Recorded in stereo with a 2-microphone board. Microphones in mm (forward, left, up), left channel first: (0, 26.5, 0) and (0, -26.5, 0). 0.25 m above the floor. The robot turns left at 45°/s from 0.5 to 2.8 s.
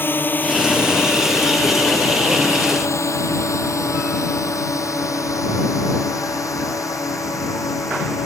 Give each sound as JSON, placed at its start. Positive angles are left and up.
{"t": 0.0, "sound": "a drone", "side_deg": 40}